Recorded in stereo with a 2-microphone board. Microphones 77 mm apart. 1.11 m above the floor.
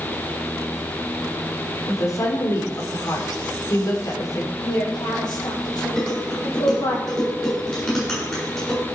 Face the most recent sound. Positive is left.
turn(degrees=10)  # may be behind; listen again after turning